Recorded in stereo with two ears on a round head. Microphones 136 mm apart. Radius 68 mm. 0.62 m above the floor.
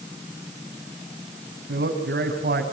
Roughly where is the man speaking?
Right.